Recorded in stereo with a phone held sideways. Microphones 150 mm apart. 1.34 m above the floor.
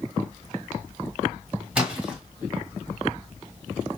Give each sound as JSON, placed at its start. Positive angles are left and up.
{"t": 1.8, "sound": "a splash", "side_deg": -10, "distance_m": 1.6}